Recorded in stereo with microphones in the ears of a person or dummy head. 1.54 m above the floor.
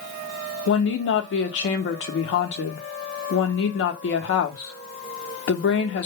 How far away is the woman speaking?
About 0.6 m.